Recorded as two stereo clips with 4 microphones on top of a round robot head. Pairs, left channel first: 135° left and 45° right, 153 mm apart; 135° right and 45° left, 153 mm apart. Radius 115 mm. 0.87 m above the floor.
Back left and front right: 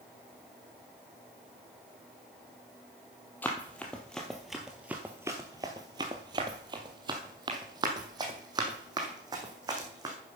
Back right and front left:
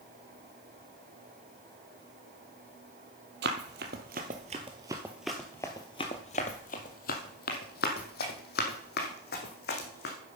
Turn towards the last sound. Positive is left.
turn(degrees=-110)